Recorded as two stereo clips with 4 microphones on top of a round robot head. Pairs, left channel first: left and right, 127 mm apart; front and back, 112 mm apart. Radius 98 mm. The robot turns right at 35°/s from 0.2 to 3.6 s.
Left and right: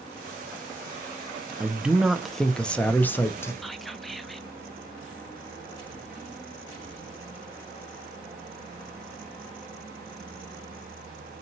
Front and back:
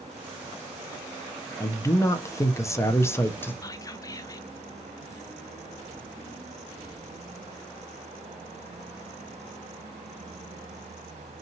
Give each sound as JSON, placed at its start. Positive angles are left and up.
{"t": 1.6, "sound": "a man speaking", "azimuth_deg": -20, "distance_m": 0.5}
{"t": 3.6, "sound": "whispering", "azimuth_deg": 0, "distance_m": 0.5}